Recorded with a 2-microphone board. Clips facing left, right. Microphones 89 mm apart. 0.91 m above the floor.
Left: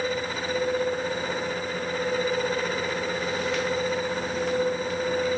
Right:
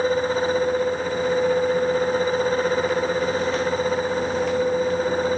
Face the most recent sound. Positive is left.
No sound to turn to.